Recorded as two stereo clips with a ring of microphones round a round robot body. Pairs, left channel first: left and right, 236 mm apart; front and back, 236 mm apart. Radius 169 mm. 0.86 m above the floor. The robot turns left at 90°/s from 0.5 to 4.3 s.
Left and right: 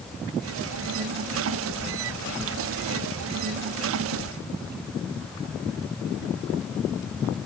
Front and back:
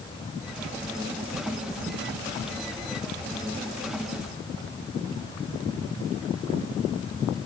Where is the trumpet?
I don't hear a trumpet.